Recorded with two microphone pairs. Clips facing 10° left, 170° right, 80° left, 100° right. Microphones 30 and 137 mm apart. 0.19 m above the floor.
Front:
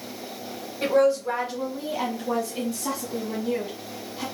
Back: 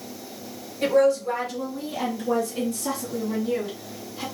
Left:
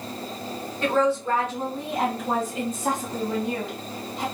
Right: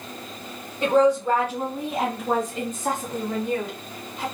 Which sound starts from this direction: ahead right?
A woman speaking, at 0.8 s.